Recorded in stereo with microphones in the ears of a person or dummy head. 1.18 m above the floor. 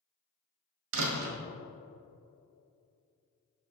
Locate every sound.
0.9 s a door slam: 80° right, 1.4 m